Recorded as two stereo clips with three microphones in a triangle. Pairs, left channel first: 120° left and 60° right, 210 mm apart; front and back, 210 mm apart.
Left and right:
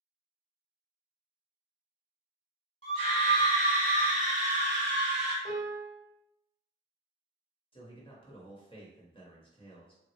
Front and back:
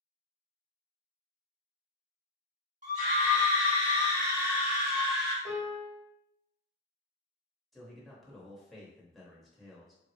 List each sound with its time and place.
2.8 s a scream: 155° left, 1.8 m; by 5.3 s 75° right, 1.5 m
5.5 s a piano: 40° right, 1.6 m
7.7 s a man speaking: 90° left, 0.9 m